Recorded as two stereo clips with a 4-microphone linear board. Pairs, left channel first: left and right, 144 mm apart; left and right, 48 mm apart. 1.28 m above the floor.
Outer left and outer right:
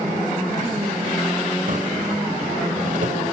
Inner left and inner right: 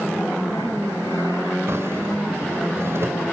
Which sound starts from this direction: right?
A drawer, at 1.7 s.